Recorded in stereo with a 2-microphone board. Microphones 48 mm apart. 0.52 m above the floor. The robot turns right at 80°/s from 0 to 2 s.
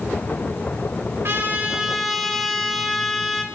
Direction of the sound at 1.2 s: 55° right.